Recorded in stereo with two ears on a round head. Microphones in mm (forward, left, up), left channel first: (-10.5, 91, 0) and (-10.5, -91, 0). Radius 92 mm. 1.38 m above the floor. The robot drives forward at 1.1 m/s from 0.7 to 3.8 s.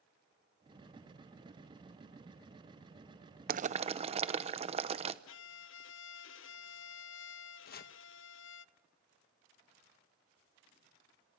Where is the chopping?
50° left (ahead or behind), 0.9 m.